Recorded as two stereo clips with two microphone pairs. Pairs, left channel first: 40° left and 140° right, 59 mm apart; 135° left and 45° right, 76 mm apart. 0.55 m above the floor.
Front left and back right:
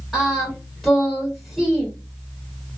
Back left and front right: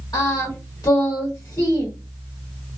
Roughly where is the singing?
Behind left.